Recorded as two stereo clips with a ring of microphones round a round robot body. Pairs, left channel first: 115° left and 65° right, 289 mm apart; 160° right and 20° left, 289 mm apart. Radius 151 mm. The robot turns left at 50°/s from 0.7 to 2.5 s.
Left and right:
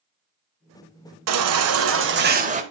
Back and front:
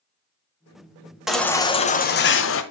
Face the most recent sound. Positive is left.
turn(degrees=-125)